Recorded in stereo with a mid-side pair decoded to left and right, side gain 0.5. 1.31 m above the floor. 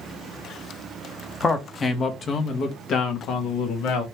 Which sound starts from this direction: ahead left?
A man speaking, at 1.4 s.